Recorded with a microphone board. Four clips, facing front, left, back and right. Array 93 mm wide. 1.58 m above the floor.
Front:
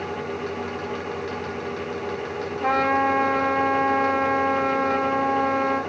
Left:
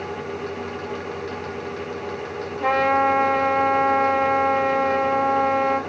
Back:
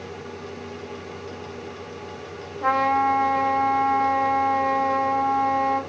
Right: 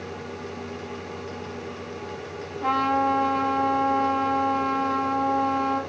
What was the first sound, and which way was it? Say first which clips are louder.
A trumpet: left 3 dB, back 1 dB; 100° left.